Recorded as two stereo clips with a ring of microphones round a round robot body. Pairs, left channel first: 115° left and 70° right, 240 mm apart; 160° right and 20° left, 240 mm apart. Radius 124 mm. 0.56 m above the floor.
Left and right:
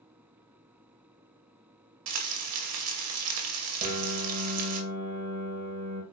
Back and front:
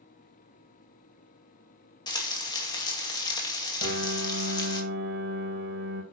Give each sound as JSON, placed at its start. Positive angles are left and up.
{"t": 2.1, "sound": "frying", "azimuth_deg": -85, "distance_m": 2.5}
{"t": 3.8, "sound": "a piano", "azimuth_deg": -10, "distance_m": 6.0}